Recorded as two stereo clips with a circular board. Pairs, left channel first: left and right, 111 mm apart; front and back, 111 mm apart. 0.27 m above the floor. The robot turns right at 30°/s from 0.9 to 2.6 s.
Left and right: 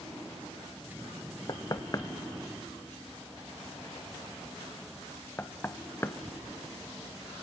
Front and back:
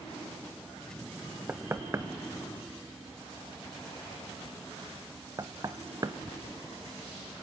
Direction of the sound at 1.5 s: 115° left.